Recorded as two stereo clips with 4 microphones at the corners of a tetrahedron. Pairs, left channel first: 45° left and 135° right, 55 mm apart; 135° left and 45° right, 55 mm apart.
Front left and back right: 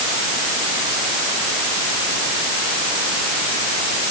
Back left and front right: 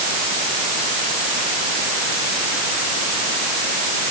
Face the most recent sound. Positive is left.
No sound to turn to.